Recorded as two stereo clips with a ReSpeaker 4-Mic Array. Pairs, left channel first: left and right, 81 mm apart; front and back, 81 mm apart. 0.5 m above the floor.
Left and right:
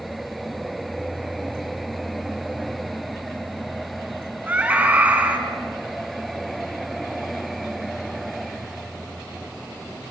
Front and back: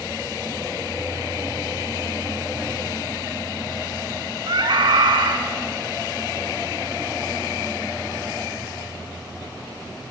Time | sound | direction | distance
4.5 | a scream | 160° right | 4.5 m